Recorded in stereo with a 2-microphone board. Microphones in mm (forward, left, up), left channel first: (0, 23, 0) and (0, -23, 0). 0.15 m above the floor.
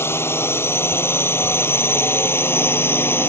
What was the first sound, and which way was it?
A drone, 70° left (ahead or behind).